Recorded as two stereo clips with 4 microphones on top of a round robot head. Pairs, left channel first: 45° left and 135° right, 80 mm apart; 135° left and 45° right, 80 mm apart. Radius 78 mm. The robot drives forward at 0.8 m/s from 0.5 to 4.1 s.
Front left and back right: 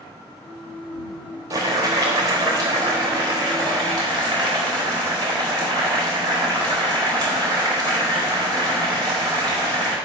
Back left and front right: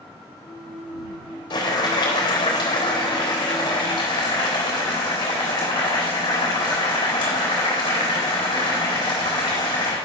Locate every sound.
1.5 s boiling: 175° left, 2.5 m